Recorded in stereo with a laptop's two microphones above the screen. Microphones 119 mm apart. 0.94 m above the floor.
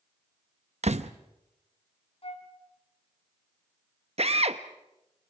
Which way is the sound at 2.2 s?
55° left (ahead or behind).